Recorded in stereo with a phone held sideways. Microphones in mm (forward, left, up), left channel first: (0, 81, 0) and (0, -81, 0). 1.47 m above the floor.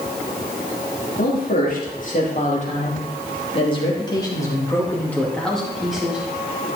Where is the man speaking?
60° left (ahead or behind), 3 m; by 6.7 s 10° right (ahead or behind), 3 m.